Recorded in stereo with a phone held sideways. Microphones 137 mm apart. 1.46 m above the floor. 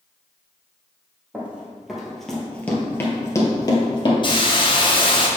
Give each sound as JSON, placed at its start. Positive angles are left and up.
{"t": 1.3, "sound": "running footsteps", "side_deg": -10, "distance_m": 2.0}
{"t": 4.2, "sound": "a hiss", "side_deg": 35, "distance_m": 0.9}